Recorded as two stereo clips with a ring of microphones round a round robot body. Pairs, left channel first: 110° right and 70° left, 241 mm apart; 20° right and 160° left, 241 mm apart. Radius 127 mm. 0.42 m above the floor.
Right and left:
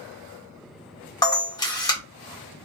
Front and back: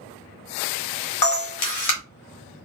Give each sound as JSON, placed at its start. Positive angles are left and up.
{"t": 1.2, "sound": "a camera shutter", "azimuth_deg": -35, "distance_m": 1.2}